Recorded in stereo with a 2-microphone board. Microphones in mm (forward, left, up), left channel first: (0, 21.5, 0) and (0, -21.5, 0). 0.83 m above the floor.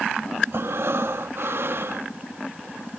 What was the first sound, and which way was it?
Breathing, 60° right (ahead or behind).